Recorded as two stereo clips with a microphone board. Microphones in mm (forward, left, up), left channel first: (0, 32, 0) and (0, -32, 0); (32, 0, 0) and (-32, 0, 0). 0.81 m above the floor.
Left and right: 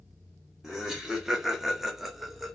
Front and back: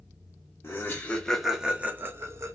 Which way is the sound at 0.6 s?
15° right.